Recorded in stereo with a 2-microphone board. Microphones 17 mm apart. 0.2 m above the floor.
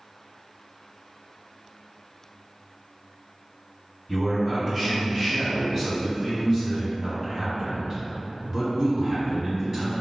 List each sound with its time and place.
4.1 s a man speaking: 5° left (ahead or behind), 1.7 m; by 9.9 s 15° right (ahead or behind), 2 m